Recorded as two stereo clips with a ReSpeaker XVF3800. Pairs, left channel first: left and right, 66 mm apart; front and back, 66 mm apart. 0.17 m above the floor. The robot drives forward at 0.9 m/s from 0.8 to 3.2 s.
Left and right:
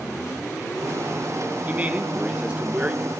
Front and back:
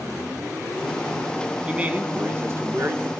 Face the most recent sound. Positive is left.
turn(degrees=-160)